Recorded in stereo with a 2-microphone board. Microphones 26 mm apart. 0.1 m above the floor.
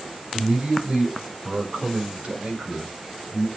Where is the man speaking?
65° right (ahead or behind), 4 m; by 3.5 s 60° right (ahead or behind), 5 m.